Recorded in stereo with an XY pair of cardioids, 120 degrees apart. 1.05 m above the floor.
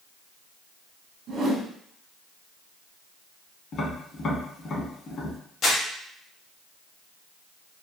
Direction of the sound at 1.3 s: 60° right.